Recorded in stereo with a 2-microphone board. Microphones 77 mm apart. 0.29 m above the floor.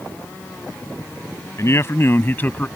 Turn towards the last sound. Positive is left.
turn(degrees=20)  # may be behind; listen again after turning